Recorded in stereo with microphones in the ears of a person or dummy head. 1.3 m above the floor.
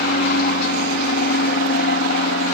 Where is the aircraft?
45° left (ahead or behind).